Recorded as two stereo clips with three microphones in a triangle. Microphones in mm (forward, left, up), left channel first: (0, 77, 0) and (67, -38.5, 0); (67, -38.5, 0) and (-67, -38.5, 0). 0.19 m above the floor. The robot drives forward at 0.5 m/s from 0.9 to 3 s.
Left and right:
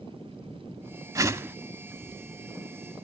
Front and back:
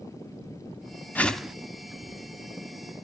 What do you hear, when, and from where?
1.1 s a whoosh: 60° right, 0.6 m; by 1.6 s 110° right, 0.6 m